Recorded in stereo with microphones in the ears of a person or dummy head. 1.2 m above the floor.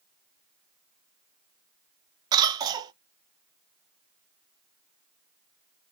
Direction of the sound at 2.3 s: 25° right (ahead or behind).